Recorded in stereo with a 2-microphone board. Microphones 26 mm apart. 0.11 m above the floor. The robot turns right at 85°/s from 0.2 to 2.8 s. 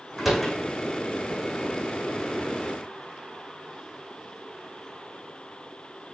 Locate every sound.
0.2 s a door slam: 15° right (ahead or behind), 6 m; by 0.6 s 15° left (ahead or behind), 6 m